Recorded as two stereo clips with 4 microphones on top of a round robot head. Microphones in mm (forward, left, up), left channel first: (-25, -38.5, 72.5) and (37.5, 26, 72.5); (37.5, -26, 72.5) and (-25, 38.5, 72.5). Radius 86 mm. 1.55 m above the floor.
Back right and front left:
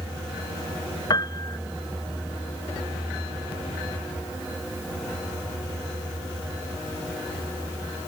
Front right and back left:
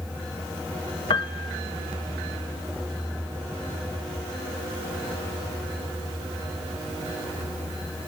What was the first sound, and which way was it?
A piano, 85° right.